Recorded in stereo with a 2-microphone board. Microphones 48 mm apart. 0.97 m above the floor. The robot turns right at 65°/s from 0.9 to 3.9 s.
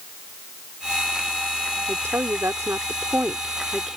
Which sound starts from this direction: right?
A woman speaking, at 1.9 s.